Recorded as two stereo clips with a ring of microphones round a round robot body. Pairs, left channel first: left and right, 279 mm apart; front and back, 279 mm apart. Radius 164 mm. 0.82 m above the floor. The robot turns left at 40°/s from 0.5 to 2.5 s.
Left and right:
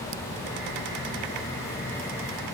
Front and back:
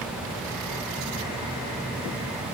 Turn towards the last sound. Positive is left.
No sound to turn to.